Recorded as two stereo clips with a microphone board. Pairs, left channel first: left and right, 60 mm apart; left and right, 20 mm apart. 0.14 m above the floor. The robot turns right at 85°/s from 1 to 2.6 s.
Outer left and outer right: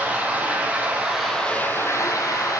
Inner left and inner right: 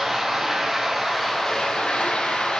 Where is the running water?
25° right, 1.1 m; by 2.6 s 115° left, 1.1 m.